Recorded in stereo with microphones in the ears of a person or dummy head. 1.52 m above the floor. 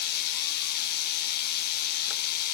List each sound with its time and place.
0.0 s a machine running: 60° left (ahead or behind), 1.6 m